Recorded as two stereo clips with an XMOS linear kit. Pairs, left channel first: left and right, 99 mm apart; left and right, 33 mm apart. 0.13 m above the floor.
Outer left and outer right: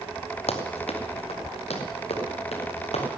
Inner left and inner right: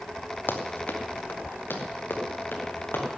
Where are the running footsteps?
80° left, 1.9 m; by 3.0 s 85° left, 4 m.